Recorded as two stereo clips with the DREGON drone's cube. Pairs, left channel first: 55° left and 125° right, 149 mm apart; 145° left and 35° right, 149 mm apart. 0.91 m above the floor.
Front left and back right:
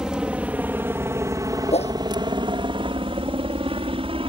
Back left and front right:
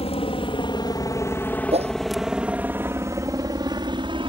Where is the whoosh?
10° left.